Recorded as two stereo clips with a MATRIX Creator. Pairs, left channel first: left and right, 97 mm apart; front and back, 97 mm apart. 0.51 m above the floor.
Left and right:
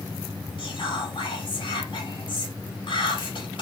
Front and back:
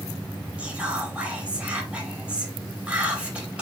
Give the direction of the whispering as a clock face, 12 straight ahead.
9 o'clock.